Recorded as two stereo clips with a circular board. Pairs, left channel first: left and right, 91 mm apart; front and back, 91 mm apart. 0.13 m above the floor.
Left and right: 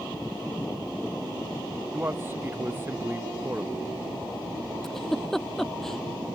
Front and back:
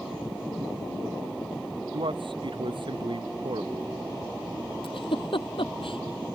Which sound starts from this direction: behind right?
A man speaking, at 1.9 s.